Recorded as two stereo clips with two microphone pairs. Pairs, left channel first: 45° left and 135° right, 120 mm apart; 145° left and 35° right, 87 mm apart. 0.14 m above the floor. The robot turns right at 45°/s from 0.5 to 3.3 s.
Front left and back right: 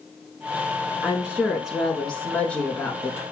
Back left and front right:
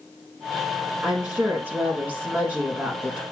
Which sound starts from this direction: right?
A woman speaking, at 1.0 s.